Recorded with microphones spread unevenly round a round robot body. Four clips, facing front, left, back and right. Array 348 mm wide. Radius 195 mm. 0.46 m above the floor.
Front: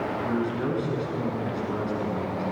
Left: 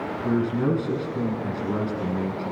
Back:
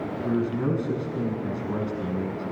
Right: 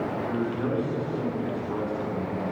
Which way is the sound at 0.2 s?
115° left.